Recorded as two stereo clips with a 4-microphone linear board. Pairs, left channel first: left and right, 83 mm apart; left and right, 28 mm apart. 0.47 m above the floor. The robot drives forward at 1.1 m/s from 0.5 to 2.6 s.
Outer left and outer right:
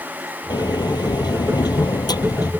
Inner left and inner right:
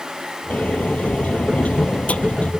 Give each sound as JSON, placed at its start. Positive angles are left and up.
{"t": 0.5, "sound": "a sliding door", "side_deg": 60}